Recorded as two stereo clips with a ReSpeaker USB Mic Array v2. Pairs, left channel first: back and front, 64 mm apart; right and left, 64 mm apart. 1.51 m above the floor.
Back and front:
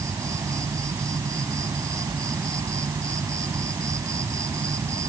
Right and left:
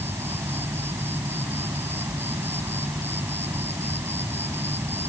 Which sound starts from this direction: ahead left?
An insect, at 0.0 s.